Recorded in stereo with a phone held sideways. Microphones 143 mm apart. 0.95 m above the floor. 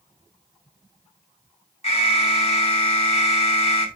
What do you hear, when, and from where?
1.8 s an alarm: 45° left (ahead or behind), 2 m